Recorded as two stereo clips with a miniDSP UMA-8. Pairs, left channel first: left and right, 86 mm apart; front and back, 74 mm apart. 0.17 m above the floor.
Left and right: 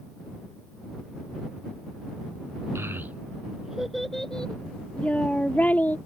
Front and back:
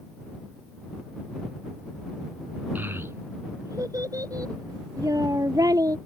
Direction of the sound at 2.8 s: 130° right.